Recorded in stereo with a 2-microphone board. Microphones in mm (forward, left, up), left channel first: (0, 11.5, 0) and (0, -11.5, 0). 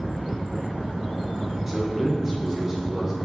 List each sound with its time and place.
1.7 s a man speaking: 15° right (ahead or behind), 1.4 m